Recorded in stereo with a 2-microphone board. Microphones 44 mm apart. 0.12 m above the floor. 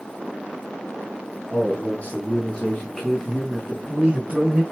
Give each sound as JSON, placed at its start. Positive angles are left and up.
{"t": 1.5, "sound": "a man speaking", "side_deg": 35, "distance_m": 1.4}